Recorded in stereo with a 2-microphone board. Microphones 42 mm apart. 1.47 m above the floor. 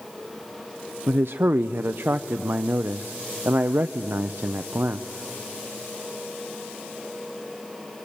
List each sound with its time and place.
1.1 s a man speaking: 55° right (ahead or behind), 0.5 m